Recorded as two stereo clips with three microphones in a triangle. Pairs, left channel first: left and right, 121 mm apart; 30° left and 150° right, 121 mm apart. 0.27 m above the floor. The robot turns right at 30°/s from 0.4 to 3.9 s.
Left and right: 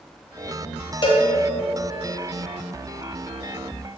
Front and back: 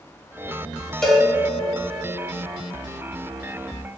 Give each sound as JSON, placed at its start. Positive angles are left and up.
{"t": 1.0, "sound": "a cowbell", "azimuth_deg": 115, "distance_m": 0.9}